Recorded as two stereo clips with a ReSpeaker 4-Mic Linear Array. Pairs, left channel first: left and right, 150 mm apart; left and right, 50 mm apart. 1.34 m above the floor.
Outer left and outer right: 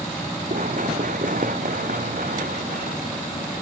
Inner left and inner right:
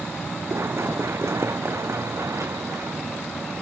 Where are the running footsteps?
60° right (ahead or behind); by 3.5 s 70° right (ahead or behind).